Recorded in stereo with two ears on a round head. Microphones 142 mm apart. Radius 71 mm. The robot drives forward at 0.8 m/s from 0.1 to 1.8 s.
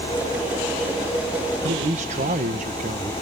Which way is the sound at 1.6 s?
50° right (ahead or behind).